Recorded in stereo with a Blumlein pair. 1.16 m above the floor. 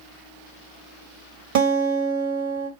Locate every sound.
1.6 s a guitar: 45° right, 1.4 m